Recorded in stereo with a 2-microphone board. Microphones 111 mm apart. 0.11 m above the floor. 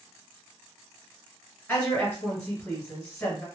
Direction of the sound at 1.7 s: 20° left (ahead or behind).